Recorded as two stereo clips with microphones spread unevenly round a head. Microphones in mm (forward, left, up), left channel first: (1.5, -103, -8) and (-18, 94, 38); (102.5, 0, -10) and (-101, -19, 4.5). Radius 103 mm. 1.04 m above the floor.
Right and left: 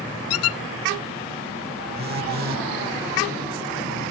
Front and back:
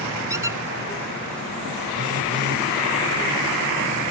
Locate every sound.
0.3 s a squeak: 95° right
1.9 s a phone buzzing: 145° left